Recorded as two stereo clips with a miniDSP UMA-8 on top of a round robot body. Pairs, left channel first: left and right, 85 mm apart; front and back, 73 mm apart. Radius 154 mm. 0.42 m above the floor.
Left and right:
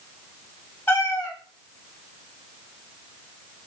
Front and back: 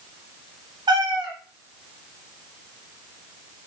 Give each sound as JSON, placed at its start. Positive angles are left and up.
{"t": 0.9, "sound": "a cat meowing", "azimuth_deg": 155, "distance_m": 1.4}